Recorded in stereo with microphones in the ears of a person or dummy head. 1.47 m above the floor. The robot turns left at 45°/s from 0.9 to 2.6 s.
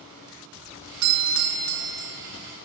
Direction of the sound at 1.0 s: 100° right.